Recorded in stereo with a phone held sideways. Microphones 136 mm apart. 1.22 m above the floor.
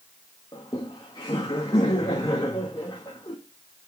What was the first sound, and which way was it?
Laughter, 30° left (ahead or behind).